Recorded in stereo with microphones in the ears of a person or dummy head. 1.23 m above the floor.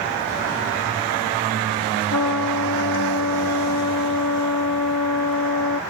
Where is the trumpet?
70° left (ahead or behind).